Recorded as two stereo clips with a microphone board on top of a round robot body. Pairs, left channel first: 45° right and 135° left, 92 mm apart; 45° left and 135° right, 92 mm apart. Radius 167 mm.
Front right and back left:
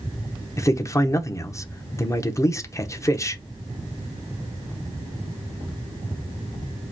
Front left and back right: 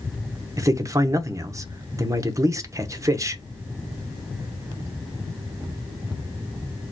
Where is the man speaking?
90° right, 0.9 m.